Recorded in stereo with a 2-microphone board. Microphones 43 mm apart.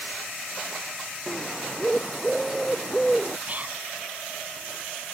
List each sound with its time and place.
1.3 s a bird: 5° left (ahead or behind)
3.5 s whispering: 35° right (ahead or behind)